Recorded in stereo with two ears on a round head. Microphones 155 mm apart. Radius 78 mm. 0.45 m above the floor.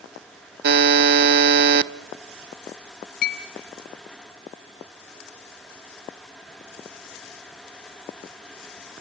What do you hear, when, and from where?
0.6 s a buzzer: 65° right (ahead or behind), 0.5 m
3.2 s a clink: 60° left (ahead or behind), 2.5 m